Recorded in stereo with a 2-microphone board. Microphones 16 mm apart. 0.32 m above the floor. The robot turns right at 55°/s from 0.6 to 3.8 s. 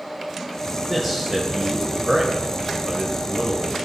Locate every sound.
0.9 s a man speaking: 175° right, 1.2 m; by 3.7 s 20° right, 1.2 m